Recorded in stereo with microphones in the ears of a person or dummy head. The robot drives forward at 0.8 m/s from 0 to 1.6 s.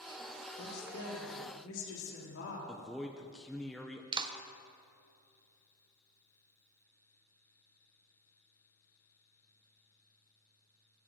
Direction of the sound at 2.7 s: Centre (ahead or behind).